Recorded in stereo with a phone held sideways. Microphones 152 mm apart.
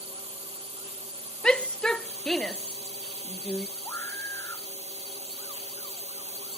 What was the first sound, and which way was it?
A drone, 40° right (ahead or behind).